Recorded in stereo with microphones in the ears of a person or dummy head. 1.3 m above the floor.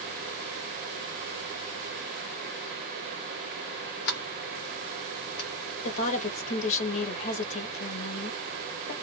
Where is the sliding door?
55° left (ahead or behind), 1.1 m.